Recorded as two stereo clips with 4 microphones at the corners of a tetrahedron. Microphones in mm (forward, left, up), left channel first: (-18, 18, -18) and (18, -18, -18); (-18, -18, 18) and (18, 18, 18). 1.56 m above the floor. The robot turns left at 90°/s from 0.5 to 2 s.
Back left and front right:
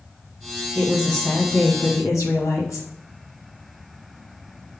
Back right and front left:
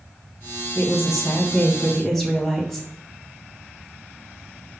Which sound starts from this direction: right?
A woman speaking, at 0.8 s.